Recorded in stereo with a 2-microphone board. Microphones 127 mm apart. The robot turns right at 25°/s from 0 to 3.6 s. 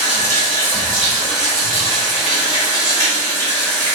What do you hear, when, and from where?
0.0 s running water: 80° left, 1.9 m; by 3.9 s 170° left, 1.9 m